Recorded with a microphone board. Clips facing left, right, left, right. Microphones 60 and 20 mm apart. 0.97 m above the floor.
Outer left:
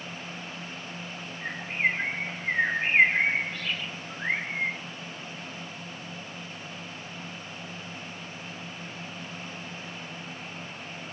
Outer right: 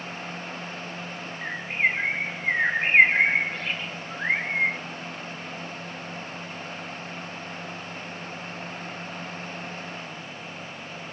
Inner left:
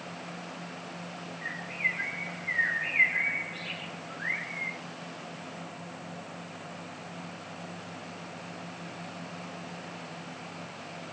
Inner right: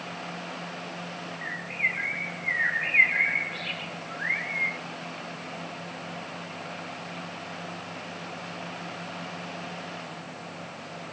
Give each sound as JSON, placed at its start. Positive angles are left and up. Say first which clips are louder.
{"t": 1.4, "sound": "a bird", "louder": "outer right 2 dB, inner right 3 dB", "side_deg": -35, "distance_m": 0.7}